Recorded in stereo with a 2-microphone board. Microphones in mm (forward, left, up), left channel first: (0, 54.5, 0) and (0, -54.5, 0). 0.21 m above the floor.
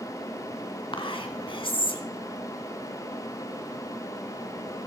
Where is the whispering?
50° left (ahead or behind), 1.8 m.